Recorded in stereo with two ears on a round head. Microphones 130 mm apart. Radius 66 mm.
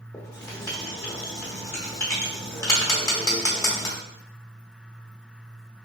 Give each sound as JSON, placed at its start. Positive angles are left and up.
{"t": 0.1, "sound": "writing", "side_deg": 25, "distance_m": 1.0}